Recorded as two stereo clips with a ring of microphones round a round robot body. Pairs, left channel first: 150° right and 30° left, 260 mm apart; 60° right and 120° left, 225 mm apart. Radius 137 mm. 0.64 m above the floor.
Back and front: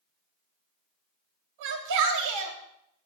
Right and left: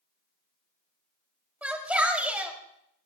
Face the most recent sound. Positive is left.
turn(degrees=35)